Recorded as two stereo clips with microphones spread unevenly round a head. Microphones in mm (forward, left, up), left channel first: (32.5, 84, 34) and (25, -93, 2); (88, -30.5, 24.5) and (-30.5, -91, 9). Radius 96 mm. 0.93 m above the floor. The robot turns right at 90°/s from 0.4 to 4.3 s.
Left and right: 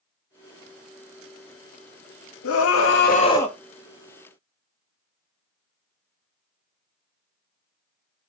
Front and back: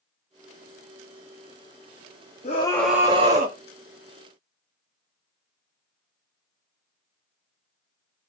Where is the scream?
80° left, 1.1 m; by 3.6 s straight behind, 1.1 m.